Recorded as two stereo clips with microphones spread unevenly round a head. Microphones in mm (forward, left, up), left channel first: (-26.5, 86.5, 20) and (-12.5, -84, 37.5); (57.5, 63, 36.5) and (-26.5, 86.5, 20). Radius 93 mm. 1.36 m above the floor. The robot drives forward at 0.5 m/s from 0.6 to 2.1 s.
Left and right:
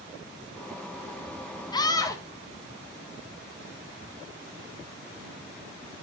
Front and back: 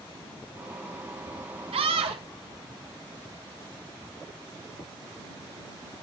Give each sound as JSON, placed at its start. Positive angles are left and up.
{"t": 1.7, "sound": "a scream", "azimuth_deg": 165, "distance_m": 1.0}